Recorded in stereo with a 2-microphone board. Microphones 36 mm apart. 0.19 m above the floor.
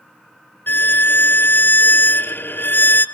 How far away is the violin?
About 0.9 m.